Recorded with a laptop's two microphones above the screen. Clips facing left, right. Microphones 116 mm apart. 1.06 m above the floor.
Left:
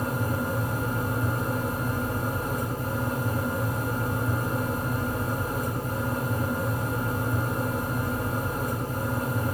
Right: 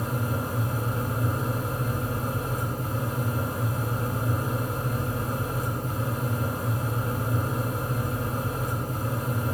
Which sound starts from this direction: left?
A fan, at 0.0 s.